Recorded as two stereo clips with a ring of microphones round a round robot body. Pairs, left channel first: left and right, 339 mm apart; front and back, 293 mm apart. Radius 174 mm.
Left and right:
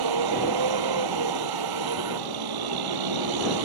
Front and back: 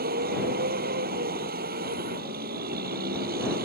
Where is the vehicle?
115° right.